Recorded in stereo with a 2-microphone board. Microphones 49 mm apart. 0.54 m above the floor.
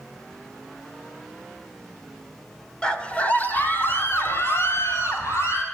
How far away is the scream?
About 1.6 m.